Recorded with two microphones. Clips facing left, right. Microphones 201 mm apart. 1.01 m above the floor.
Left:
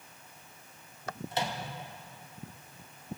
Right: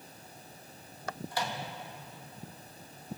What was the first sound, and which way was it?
A microwave, 20° left (ahead or behind).